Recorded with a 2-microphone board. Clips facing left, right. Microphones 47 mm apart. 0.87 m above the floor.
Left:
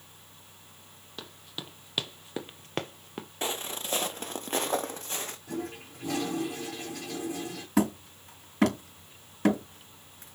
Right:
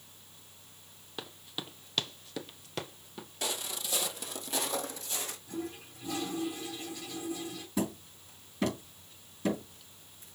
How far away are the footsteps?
About 1.1 m.